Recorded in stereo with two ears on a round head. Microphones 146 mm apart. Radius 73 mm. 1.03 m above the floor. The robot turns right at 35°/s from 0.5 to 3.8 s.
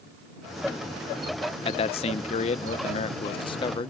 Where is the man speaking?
60° left; by 3.9 s 135° left.